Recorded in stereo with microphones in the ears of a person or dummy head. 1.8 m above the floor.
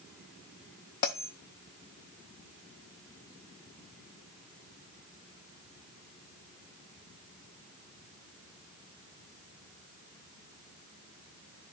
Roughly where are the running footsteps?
No running footsteps in this recording.